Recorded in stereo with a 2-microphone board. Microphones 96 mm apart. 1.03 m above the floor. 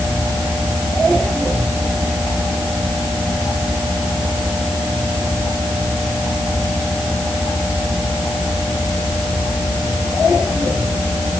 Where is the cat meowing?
No cat meowing in this recording.